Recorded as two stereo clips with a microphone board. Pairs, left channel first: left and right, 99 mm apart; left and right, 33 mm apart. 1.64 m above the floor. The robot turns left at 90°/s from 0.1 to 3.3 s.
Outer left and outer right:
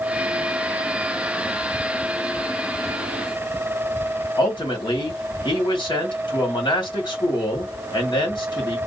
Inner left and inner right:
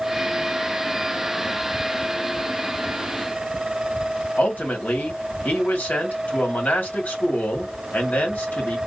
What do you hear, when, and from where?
4.4 s a man speaking: 50° left (ahead or behind), 2 m